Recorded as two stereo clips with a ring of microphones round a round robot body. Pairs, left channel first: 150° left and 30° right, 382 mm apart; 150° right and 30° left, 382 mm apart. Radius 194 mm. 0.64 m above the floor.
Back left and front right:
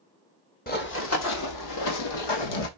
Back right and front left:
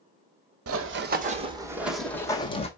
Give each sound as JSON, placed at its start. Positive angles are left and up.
{"t": 0.7, "sound": "running footsteps", "azimuth_deg": 85, "distance_m": 1.3}